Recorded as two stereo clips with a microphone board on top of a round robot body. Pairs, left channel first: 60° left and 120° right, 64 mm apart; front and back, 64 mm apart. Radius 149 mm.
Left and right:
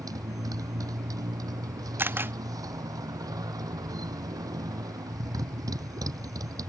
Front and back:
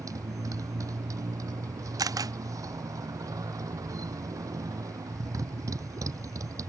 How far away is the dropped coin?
I don't hear a dropped coin.